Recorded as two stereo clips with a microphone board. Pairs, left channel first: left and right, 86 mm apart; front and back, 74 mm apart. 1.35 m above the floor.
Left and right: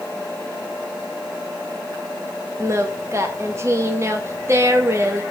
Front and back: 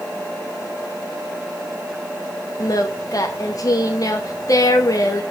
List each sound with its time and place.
2.6 s singing: 35° right, 1.0 m